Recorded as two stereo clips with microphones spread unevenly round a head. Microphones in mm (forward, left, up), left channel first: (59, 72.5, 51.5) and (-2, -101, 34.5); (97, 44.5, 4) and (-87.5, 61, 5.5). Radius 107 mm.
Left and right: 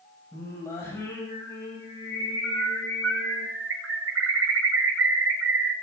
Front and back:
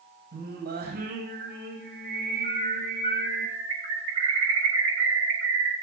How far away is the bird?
About 8 m.